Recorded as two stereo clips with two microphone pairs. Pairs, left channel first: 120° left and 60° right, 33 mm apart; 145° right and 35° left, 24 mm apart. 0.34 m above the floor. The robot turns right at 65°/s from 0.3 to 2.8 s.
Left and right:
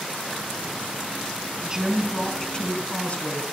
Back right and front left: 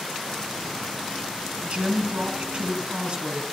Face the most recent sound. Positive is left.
turn(degrees=75)